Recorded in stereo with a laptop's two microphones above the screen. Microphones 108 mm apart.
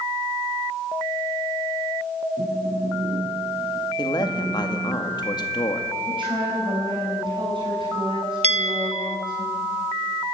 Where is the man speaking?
40° left (ahead or behind), 1.7 m.